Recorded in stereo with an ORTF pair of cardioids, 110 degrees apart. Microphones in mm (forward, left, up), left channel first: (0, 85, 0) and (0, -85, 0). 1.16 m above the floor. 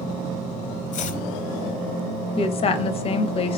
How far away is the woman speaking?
About 0.6 m.